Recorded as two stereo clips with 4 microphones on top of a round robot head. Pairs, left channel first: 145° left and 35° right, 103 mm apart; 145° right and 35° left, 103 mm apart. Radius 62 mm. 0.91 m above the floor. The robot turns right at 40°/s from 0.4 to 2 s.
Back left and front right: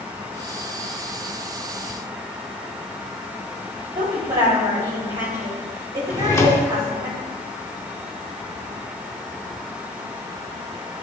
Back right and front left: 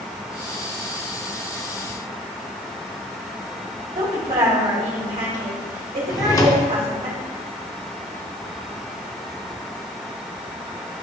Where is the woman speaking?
10° left, 2 m.